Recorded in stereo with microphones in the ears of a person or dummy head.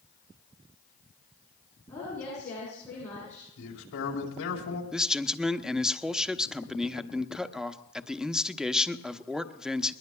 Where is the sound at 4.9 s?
5° right (ahead or behind), 0.8 m.